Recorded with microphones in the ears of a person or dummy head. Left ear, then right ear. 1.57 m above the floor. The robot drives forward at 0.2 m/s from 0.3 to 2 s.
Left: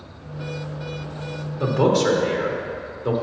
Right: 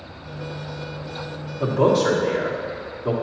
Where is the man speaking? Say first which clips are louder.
Right 1 dB; 10° left (ahead or behind), 1.1 m.